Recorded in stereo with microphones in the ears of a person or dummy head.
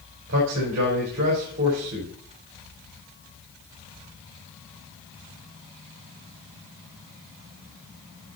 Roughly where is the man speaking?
Right.